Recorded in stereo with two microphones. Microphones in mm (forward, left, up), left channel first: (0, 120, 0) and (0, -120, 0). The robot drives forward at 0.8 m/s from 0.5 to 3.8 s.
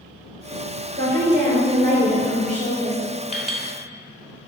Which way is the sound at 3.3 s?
25° left (ahead or behind).